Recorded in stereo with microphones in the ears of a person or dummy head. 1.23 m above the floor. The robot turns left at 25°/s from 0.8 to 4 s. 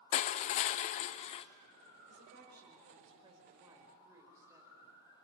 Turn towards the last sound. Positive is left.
turn(degrees=-165)